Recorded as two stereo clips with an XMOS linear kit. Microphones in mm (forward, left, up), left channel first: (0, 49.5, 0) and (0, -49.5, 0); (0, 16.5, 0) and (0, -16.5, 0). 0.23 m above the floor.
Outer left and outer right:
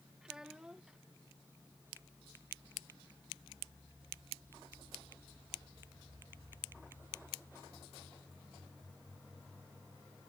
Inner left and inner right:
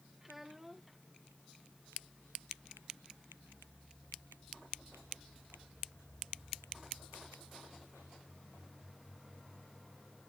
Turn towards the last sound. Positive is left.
turn(degrees=-5)  # may be behind; listen again after turning